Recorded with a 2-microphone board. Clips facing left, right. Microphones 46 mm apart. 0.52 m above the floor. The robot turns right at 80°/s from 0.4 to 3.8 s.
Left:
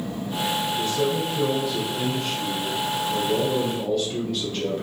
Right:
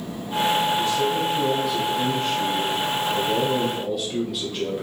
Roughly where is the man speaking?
Left.